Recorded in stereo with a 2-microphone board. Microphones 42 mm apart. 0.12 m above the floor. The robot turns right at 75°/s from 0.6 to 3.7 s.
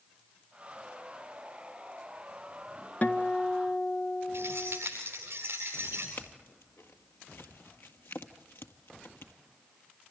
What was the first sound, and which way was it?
A guitar, 85° left.